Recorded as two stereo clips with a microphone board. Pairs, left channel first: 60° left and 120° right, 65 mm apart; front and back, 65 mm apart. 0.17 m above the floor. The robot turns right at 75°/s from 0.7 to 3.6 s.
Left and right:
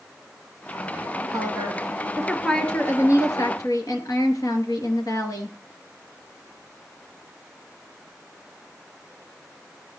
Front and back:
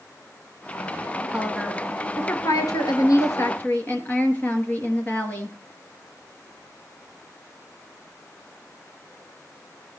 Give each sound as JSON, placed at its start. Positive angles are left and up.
{"t": 1.3, "sound": "a woman speaking", "azimuth_deg": -110, "distance_m": 2.5}